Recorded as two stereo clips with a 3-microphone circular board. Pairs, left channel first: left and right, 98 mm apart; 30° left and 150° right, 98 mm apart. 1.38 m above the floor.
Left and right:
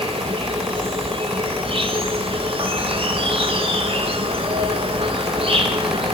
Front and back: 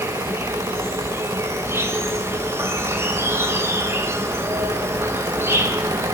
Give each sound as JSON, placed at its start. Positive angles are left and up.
{"t": 0.0, "sound": "an insect", "azimuth_deg": -90, "distance_m": 3.0}